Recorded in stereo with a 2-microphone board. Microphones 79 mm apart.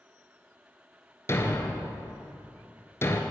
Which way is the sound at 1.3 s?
35° left (ahead or behind).